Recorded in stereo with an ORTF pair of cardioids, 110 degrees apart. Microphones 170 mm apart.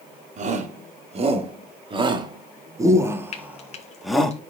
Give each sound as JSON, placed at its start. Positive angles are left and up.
{"t": 0.4, "sound": "a shout", "azimuth_deg": -45, "distance_m": 3.5}
{"t": 3.3, "sound": "frying", "azimuth_deg": 40, "distance_m": 2.0}